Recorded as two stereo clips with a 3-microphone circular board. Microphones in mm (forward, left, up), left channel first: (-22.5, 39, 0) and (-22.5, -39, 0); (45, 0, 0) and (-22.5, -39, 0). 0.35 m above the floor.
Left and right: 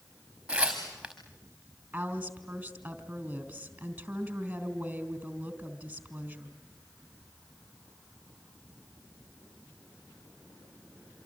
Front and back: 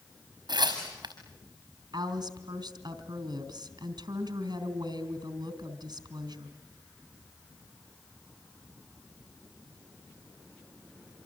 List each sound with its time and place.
0.5 s tearing paper: 170° right, 5.5 m
1.9 s a woman speaking: 160° right, 3.5 m